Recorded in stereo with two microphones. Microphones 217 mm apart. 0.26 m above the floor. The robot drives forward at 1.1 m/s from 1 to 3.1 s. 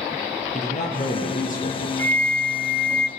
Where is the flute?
40° right (ahead or behind), 1.2 m; by 3.1 s 50° right (ahead or behind), 1.0 m.